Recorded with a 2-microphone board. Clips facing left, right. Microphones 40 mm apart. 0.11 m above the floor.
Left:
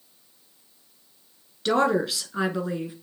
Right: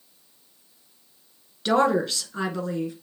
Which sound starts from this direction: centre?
A woman speaking, at 1.6 s.